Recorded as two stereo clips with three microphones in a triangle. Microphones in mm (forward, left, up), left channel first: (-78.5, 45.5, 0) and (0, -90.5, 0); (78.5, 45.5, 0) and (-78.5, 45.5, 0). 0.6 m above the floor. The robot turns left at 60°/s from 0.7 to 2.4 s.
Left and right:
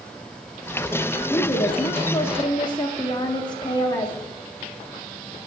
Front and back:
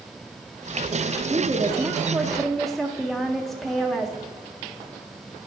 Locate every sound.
1.3 s a woman speaking: 150° left, 0.7 m; by 4.2 s 85° left, 0.7 m